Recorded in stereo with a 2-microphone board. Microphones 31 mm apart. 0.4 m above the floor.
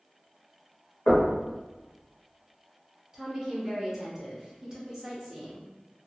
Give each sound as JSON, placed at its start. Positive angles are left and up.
{"t": 1.1, "sound": "knocking", "side_deg": 35, "distance_m": 1.2}
{"t": 3.1, "sound": "a woman speaking", "side_deg": -20, "distance_m": 0.9}